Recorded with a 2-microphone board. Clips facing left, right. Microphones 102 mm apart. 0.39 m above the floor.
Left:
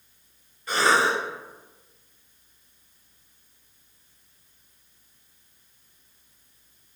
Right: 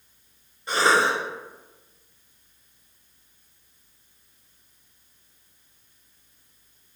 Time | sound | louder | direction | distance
0.7 | a cough | right 1 dB | 25° right (ahead or behind) | 1.3 m